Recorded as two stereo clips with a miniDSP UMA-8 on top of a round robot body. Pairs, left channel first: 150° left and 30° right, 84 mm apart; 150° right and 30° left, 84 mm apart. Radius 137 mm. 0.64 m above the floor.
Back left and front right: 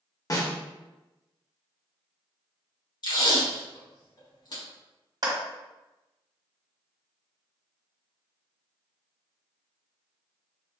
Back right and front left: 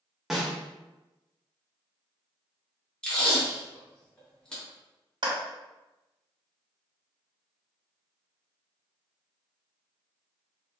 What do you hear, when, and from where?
0.3 s a snare drum: 115° left, 1.3 m
3.0 s tape being pulled: 130° left, 1.9 m
5.2 s a clap: 5° left, 1.7 m